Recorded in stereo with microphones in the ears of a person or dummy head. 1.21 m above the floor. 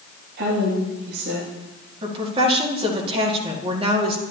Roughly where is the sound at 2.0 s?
Right.